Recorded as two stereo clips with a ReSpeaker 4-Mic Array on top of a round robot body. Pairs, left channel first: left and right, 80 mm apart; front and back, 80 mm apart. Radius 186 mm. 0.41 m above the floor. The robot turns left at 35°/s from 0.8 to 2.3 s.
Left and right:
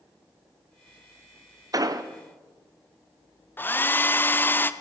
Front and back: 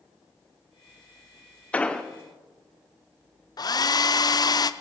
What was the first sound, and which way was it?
An explosion, 70° right.